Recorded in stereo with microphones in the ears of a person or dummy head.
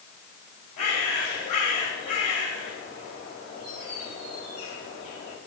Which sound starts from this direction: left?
A bird, at 0.8 s.